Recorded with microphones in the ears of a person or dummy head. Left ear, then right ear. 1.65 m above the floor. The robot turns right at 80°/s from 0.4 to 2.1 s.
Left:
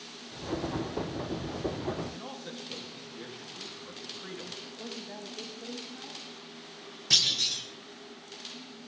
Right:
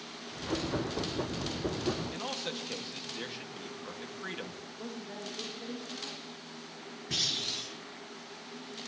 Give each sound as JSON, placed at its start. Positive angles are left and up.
{"t": 2.1, "sound": "a man speaking", "side_deg": -25, "distance_m": 2.0}
{"t": 4.8, "sound": "a woman speaking", "side_deg": 15, "distance_m": 2.5}
{"t": 7.1, "sound": "a clunk", "side_deg": 70, "distance_m": 3.5}